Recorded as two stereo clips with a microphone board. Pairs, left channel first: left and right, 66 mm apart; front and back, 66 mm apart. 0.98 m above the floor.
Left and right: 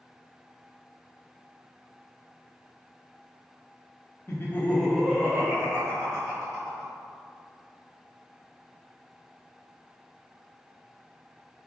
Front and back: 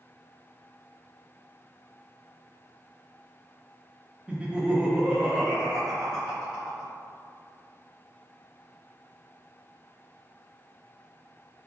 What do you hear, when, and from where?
4.3 s laughter: 110° left, 0.6 m; by 6.9 s 90° right, 1.3 m